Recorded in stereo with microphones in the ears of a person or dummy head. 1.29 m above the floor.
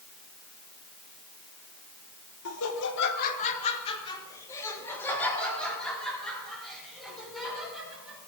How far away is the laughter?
About 1.3 m.